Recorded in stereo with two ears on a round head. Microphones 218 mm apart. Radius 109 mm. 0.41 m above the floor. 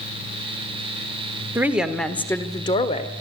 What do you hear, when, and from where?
1.6 s a woman speaking: 10° right (ahead or behind), 1.4 m; by 3.1 s 30° left (ahead or behind), 1.6 m